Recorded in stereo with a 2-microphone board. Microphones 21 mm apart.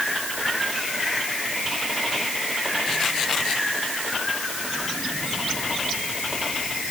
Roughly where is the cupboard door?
I don't hear a cupboard door.